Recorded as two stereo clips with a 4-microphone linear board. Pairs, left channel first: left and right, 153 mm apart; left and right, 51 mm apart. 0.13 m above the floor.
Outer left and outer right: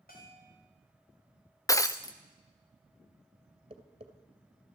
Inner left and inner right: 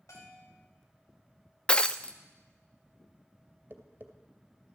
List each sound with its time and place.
0.1 s a bell: 75° left (ahead or behind), 6 m
1.7 s breaking glass: 20° left (ahead or behind), 0.7 m
3.7 s tapping: 40° right (ahead or behind), 2 m